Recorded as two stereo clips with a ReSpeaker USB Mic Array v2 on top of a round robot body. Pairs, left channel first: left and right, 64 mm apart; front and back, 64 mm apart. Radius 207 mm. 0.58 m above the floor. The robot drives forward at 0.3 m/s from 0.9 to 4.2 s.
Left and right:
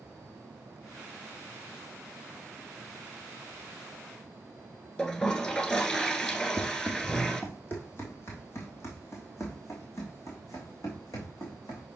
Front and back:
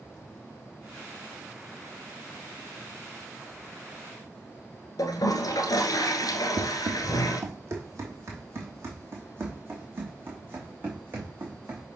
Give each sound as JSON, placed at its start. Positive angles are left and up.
{"t": 5.0, "sound": "a toilet flushing", "azimuth_deg": 15, "distance_m": 1.6}
{"t": 6.6, "sound": "running footsteps", "azimuth_deg": 155, "distance_m": 1.9}